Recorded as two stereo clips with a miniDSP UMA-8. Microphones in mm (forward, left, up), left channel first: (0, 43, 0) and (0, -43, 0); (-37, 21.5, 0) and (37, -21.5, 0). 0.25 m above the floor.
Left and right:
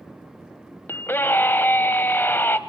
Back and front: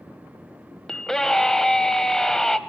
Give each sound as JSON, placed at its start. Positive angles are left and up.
{"t": 0.9, "sound": "a scream", "azimuth_deg": 75, "distance_m": 1.0}